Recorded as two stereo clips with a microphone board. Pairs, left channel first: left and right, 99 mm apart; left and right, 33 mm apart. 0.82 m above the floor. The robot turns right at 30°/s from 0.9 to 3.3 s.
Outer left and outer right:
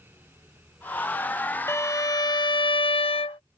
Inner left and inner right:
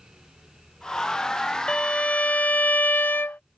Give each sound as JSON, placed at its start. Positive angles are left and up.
{"t": 1.7, "sound": "a violin", "azimuth_deg": 30}